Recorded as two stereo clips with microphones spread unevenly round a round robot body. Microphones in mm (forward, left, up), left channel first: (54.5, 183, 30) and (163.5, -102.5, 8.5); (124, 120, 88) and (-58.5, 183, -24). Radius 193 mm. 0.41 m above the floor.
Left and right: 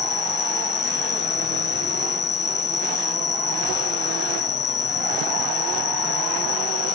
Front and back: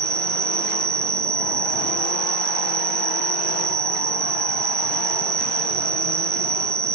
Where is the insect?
170° left.